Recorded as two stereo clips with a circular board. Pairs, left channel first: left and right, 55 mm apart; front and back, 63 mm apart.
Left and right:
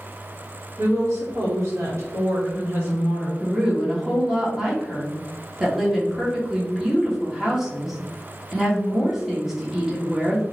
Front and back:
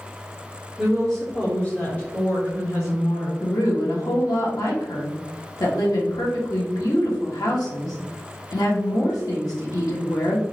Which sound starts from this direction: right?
A woman speaking, at 0.8 s.